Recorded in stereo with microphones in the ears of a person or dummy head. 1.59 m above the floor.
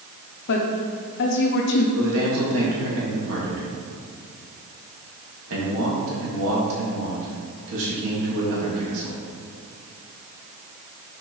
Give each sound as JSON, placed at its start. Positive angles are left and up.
{"t": 0.5, "sound": "a woman speaking", "side_deg": 60, "distance_m": 0.7}
{"t": 1.9, "sound": "a man speaking", "side_deg": -80, "distance_m": 2.5}